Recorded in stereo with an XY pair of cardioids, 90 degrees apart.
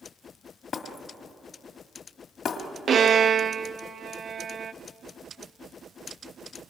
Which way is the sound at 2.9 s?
50° right.